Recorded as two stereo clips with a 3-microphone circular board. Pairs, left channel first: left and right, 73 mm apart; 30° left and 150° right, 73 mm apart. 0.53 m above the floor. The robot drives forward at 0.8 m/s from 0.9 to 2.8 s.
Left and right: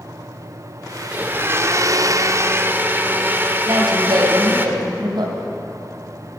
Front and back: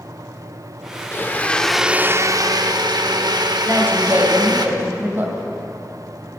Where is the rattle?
I don't hear a rattle.